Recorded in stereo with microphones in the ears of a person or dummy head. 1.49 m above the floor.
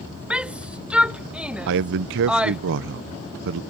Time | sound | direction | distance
0.3 | a shout | 10° right (ahead or behind) | ?
1.7 | a man speaking | 60° right (ahead or behind) | ?